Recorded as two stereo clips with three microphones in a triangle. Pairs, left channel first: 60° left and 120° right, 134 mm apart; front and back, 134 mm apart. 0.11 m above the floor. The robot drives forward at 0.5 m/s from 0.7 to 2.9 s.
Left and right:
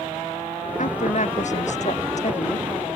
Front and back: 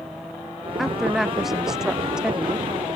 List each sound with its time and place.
0.8 s a woman speaking: 90° left; by 2.9 s 100° left